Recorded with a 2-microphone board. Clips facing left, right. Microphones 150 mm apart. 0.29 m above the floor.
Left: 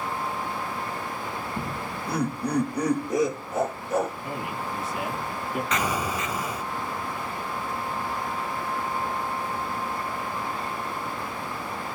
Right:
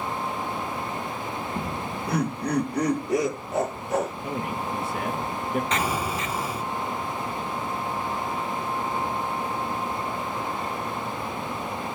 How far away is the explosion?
About 2.5 m.